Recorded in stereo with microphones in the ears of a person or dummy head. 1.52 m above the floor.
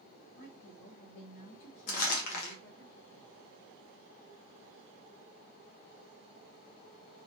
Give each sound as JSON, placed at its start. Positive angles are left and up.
{"t": 0.3, "sound": "a woman speaking", "side_deg": 75, "distance_m": 0.9}
{"t": 1.9, "sound": "crumpling", "side_deg": 60, "distance_m": 0.7}